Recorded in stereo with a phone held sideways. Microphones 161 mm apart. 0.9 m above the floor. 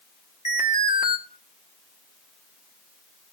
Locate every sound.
0.5 s an alarm: 45° left (ahead or behind), 1.8 m